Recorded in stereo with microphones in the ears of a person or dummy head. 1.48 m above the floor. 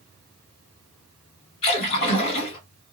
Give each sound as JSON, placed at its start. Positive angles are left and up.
{"t": 1.6, "sound": "a splash", "side_deg": 45, "distance_m": 2.0}